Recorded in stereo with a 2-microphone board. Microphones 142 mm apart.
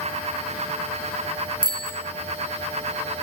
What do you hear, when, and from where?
1.6 s a bicycle bell: 75° right (ahead or behind), 3.5 m